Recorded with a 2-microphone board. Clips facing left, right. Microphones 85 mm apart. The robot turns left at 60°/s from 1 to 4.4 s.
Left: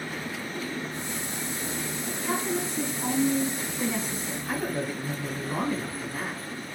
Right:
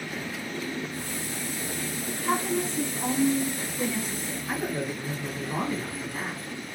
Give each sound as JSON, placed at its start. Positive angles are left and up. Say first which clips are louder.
{"t": 2.2, "sound": "a woman speaking", "louder": "right 3 dB", "azimuth_deg": -100, "distance_m": 1.5}
{"t": 4.5, "sound": "a man speaking", "louder": "even", "side_deg": 0, "distance_m": 1.6}